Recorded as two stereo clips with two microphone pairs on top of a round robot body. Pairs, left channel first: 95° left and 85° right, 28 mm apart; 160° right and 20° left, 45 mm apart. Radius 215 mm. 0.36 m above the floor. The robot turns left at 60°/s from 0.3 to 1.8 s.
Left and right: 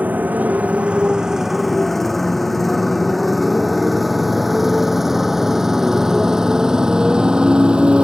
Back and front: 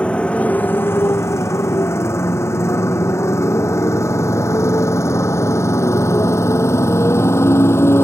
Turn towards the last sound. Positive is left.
turn(degrees=-140)